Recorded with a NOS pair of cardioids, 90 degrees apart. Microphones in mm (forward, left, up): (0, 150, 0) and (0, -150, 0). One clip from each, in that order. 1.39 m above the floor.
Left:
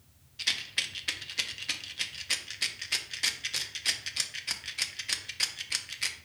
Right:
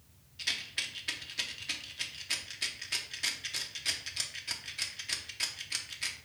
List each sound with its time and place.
0.4 s a rattle: 20° left, 0.6 m